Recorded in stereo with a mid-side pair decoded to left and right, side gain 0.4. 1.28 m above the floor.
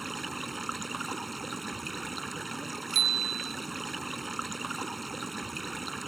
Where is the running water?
15° right.